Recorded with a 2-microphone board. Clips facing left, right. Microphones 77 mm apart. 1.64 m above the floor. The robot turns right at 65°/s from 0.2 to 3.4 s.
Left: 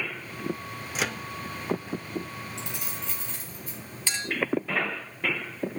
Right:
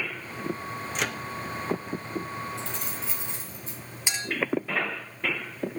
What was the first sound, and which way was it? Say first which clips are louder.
A microwave: left 1 dB; 5° left (ahead or behind).